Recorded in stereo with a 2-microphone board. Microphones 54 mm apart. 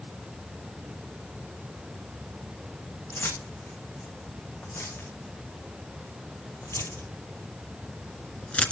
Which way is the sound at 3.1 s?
75° left (ahead or behind).